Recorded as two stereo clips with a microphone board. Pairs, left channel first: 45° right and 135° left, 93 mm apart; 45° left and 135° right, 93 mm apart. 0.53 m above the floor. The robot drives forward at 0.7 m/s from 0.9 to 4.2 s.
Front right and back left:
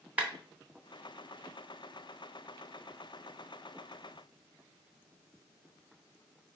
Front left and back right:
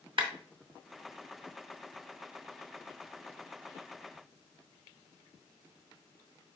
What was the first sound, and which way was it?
A clap, 150° right.